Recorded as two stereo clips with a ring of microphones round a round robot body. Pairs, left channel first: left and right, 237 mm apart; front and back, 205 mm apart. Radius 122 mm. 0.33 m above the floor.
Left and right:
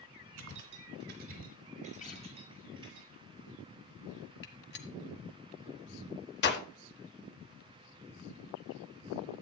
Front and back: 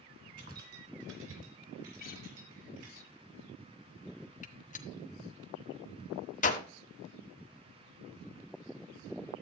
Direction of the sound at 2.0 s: 35° left.